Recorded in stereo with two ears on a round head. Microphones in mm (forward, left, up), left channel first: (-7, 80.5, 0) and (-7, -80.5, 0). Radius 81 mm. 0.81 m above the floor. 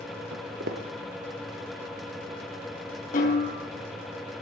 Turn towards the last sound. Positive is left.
turn(degrees=45)  # may be behind; listen again after turning